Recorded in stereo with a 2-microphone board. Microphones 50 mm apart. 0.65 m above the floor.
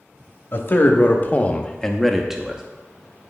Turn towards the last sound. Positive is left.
turn(degrees=-15)  # may be behind; listen again after turning